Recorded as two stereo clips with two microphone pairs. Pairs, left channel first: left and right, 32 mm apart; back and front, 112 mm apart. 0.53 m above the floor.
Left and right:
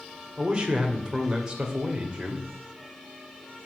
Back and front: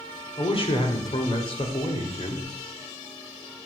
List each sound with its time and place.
0.4 s a man speaking: 150° right, 2.5 m